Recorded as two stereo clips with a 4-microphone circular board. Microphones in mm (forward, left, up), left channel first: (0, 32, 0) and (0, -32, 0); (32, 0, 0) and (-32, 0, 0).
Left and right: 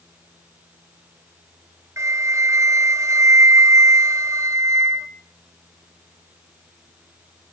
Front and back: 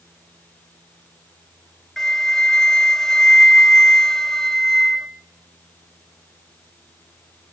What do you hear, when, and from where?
2.0 s a flute: 80° right, 0.6 m